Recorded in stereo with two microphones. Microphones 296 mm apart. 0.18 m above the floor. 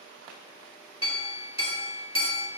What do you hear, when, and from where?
1.0 s a clink: 20° left (ahead or behind), 1.4 m